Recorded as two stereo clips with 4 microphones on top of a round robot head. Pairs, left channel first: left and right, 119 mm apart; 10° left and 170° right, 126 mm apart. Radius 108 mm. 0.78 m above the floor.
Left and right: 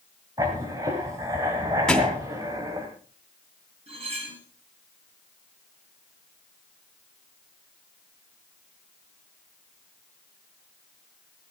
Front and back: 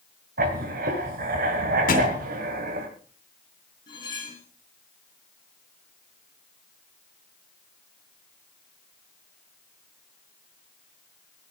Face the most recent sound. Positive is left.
turn(degrees=-55)